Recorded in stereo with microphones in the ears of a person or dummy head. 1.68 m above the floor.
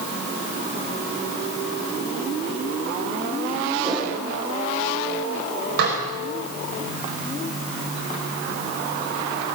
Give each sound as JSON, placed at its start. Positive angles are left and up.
{"t": 3.8, "sound": "a whoosh", "side_deg": -15, "distance_m": 8.5}
{"t": 5.8, "sound": "dishes clattering", "side_deg": -60, "distance_m": 4.5}